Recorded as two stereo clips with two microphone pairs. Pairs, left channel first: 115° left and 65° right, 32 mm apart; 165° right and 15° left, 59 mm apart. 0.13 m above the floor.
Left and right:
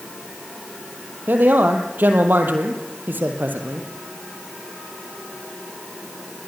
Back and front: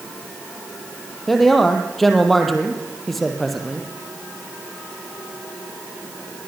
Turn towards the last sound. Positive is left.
turn(degrees=-80)